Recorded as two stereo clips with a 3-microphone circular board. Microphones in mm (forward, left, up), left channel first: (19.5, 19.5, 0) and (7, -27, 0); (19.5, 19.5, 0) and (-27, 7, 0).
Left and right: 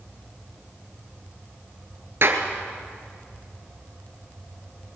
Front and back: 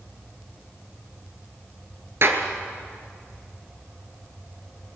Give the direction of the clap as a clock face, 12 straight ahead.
5 o'clock.